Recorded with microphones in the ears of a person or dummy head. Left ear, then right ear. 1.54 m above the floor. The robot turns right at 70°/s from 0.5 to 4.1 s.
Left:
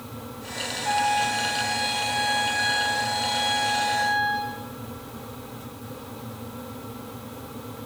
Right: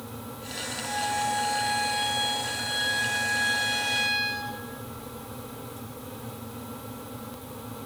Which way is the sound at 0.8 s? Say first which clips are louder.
Left 6 dB; 85° left.